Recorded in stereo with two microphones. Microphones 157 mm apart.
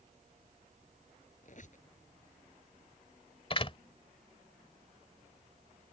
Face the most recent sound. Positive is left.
turn(degrees=40)  # may be behind; listen again after turning